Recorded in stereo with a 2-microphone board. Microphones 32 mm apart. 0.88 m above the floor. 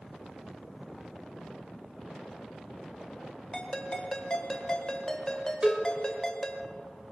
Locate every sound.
3.5 s a ringtone: 25° left (ahead or behind), 1.8 m
5.6 s a cowbell: 25° right (ahead or behind), 2.5 m